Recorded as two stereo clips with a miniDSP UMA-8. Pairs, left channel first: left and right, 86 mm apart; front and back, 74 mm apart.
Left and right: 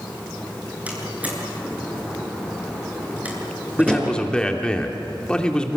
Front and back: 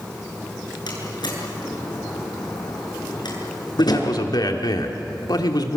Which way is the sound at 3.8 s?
10° left.